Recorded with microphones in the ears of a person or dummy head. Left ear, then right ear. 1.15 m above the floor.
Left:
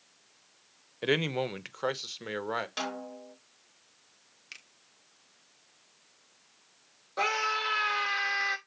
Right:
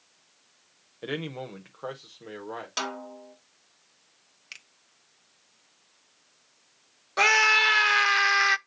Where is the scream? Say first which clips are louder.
Right 10 dB; 40° right (ahead or behind), 0.5 m.